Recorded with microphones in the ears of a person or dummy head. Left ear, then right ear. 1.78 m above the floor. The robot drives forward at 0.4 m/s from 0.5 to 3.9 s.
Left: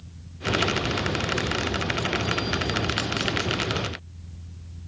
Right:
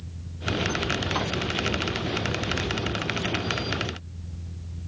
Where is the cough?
No cough in this recording.